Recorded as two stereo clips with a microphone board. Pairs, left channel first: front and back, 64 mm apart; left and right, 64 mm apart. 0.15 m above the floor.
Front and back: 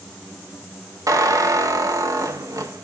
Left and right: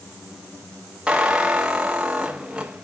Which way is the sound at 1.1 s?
165° right.